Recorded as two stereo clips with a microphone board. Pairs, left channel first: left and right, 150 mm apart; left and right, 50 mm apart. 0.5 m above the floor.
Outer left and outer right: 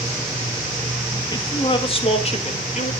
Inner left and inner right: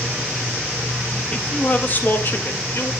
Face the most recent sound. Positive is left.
turn(degrees=55)  # may be behind; listen again after turning